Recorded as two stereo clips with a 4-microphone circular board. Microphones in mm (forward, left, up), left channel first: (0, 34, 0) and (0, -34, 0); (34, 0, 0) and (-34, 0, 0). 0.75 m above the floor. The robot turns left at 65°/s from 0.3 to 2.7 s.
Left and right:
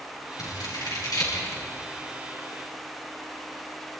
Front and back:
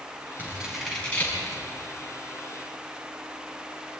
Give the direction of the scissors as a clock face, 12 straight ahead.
8 o'clock.